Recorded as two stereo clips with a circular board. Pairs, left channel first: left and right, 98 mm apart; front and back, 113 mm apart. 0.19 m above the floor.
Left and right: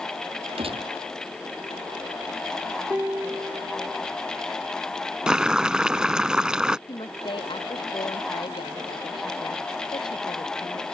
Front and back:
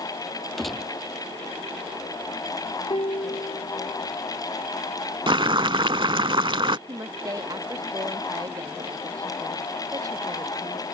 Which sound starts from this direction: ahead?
A piano, at 2.9 s.